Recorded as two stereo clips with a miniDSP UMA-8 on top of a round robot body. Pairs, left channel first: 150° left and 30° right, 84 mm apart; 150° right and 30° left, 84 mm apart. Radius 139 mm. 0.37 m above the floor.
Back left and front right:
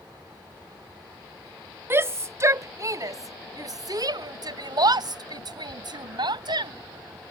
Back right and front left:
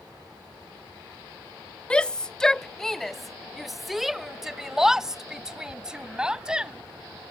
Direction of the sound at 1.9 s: 75° right.